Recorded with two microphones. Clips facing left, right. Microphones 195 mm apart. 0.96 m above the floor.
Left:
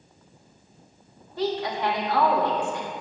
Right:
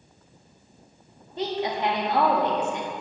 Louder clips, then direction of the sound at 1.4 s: Left 1 dB; 20° right (ahead or behind).